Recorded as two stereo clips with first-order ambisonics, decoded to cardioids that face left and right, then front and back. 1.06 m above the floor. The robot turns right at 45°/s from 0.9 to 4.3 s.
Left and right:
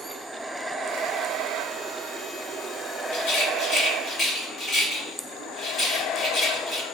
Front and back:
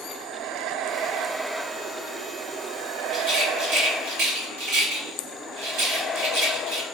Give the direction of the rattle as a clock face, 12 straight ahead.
8 o'clock.